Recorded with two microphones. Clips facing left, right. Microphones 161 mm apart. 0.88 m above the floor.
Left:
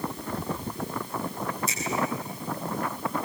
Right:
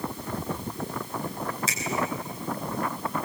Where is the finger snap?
85° right, 5.5 m.